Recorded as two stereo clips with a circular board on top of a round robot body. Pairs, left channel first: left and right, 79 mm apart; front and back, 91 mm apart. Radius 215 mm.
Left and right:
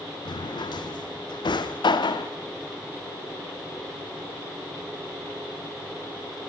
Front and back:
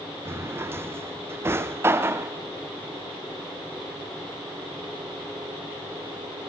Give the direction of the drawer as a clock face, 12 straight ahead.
8 o'clock.